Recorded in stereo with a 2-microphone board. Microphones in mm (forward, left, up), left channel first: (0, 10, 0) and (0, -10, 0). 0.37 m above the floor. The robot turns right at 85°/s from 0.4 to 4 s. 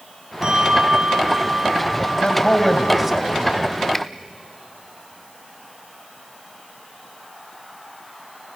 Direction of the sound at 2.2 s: 125° left.